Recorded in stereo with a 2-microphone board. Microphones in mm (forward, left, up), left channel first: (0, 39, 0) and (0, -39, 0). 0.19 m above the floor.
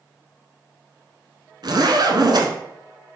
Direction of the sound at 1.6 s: 65° right (ahead or behind).